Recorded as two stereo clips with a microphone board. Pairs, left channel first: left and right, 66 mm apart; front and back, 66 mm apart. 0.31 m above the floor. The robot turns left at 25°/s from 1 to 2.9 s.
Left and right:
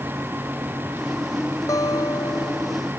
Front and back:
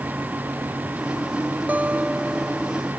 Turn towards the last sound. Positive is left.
turn(degrees=85)